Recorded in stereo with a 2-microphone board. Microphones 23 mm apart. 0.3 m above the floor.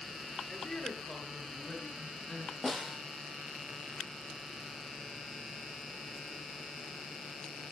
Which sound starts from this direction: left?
A woman speaking, at 0.5 s.